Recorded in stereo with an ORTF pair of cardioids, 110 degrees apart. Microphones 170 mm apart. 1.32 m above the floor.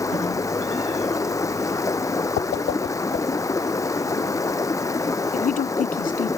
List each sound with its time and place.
0.0 s running water: 20° left
2.4 s a whoosh: 70° left
5.3 s a woman speaking: 50° left